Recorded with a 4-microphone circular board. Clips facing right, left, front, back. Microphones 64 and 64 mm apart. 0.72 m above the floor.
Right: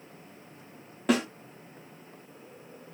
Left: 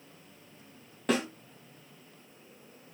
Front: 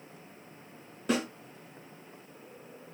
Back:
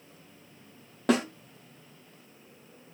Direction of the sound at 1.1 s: 175° right.